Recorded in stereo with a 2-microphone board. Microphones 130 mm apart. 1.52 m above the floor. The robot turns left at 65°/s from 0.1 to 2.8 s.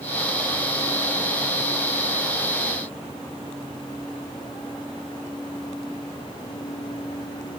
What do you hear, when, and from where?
Only background noise.